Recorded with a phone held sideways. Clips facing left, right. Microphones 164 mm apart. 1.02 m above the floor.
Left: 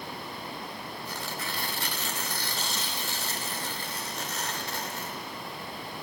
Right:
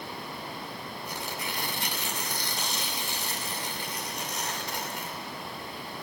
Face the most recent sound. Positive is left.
turn(degrees=-15)  # may be behind; listen again after turning